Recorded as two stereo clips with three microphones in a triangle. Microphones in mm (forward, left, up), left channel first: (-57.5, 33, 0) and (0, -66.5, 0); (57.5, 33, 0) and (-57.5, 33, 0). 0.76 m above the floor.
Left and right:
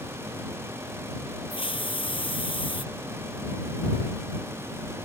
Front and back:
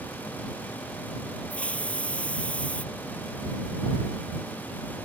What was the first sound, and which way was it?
A hiss, 80° left.